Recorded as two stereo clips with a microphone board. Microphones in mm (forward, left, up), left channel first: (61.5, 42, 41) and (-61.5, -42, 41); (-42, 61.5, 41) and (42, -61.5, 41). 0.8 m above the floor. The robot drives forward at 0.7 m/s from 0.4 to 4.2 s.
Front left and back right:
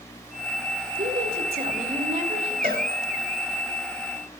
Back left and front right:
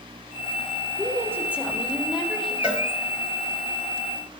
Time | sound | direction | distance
1.0 | a woman speaking | 125° right | 2 m
2.6 | a cowbell | 135° right | 2.5 m